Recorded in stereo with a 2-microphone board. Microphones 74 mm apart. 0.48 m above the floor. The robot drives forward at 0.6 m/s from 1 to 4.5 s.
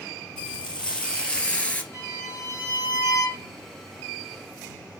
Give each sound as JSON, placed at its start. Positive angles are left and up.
{"t": 0.4, "sound": "frying", "side_deg": 15, "distance_m": 1.8}
{"t": 1.9, "sound": "a violin", "side_deg": 40, "distance_m": 3.0}